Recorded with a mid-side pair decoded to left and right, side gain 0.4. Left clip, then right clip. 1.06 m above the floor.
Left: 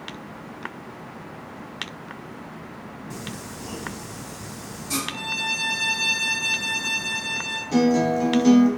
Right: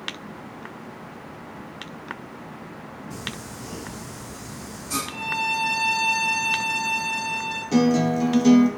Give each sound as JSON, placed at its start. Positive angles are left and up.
{"t": 3.1, "sound": "singing", "azimuth_deg": 65, "distance_m": 1.7}
{"t": 5.1, "sound": "a violin", "azimuth_deg": 65, "distance_m": 1.6}
{"t": 7.7, "sound": "a guitar", "azimuth_deg": -25, "distance_m": 0.6}